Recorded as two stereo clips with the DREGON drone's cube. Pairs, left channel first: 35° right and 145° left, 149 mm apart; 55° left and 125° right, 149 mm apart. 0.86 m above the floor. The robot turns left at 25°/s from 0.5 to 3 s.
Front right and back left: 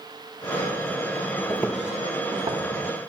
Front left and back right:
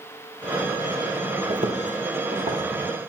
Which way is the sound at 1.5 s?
100° right.